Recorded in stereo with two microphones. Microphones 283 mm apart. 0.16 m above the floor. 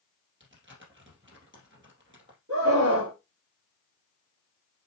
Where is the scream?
50° right (ahead or behind), 3.5 m.